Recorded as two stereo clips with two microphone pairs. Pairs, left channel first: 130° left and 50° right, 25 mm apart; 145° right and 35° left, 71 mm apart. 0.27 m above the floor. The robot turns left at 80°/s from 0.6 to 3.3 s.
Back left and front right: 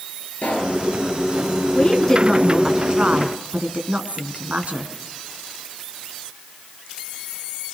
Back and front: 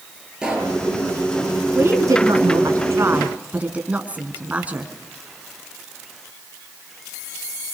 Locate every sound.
0.4 s a pop: 115° left, 6.5 m; by 0.8 s 100° left, 6.5 m
1.8 s a woman speaking: 90° left, 3 m; by 4.9 s 35° right, 3 m